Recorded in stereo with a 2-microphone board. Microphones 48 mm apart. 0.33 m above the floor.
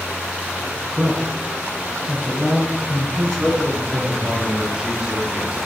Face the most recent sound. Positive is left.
turn(degrees=-10)  # may be behind; listen again after turning